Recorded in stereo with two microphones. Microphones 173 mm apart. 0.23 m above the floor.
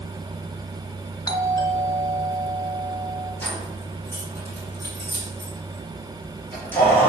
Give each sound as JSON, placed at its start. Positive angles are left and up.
{"t": 1.3, "sound": "a doorbell", "side_deg": 20, "distance_m": 1.6}
{"t": 3.4, "sound": "keys jangling", "side_deg": 10, "distance_m": 4.0}